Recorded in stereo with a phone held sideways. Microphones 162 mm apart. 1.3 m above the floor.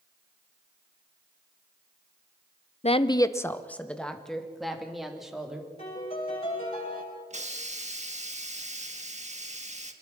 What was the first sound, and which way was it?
A woman speaking, 40° left (ahead or behind).